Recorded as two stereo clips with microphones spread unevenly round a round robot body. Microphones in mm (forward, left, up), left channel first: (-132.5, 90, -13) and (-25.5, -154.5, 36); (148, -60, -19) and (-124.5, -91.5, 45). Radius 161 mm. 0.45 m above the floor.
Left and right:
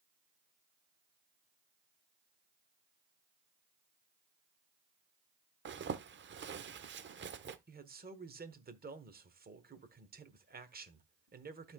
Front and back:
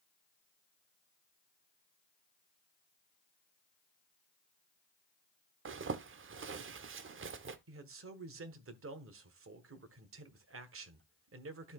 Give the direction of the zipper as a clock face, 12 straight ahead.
4 o'clock.